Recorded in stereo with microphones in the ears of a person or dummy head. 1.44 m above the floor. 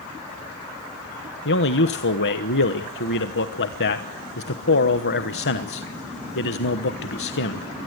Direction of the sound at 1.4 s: 50° left (ahead or behind).